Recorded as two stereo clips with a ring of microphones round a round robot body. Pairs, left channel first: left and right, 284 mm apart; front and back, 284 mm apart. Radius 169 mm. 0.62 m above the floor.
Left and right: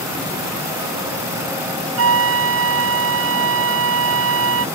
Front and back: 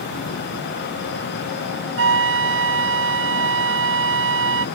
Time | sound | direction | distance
2.0 | a flute | 135° right | ?